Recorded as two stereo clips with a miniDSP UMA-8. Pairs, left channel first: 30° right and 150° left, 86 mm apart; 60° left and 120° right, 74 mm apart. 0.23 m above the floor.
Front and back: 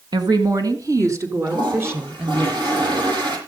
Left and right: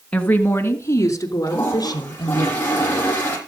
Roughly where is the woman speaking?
Behind left.